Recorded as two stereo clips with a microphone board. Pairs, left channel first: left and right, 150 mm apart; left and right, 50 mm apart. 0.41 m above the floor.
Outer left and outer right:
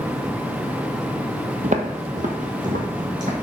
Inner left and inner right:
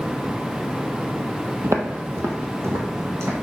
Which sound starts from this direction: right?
Footsteps, at 1.6 s.